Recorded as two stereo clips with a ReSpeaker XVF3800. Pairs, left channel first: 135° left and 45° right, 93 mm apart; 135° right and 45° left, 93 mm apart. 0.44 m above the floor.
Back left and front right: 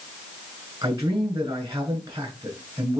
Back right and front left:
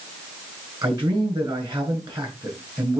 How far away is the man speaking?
About 7 m.